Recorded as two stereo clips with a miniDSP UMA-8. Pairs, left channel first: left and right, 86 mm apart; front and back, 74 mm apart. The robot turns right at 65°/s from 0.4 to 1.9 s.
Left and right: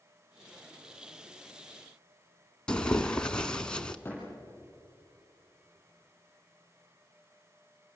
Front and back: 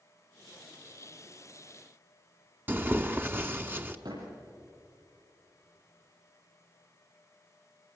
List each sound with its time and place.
2.7 s tearing paper: 160° left, 1.0 m
4.0 s a door slam: 160° left, 9.5 m